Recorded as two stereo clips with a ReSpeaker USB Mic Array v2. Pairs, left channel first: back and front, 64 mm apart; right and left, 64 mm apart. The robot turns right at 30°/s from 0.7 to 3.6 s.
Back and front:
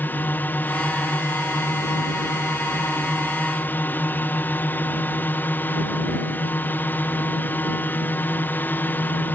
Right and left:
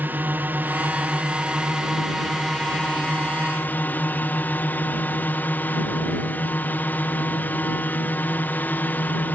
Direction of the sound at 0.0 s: 135° left.